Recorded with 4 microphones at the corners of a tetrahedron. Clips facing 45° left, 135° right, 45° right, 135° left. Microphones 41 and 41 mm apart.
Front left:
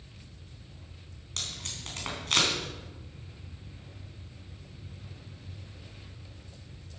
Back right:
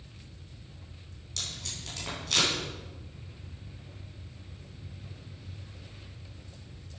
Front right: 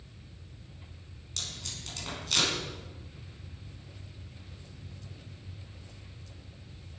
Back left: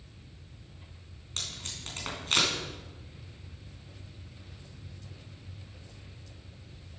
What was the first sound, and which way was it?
Tape being pulled, 85° left.